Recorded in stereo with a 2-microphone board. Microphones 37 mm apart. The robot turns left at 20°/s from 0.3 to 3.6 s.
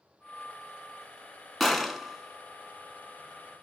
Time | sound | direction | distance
1.6 | a gunshot | centre (ahead or behind) | 0.5 m